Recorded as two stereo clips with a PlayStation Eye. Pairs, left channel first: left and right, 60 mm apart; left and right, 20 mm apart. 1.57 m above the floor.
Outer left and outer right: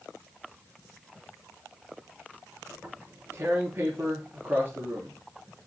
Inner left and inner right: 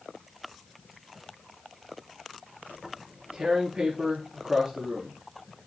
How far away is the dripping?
No dripping in this recording.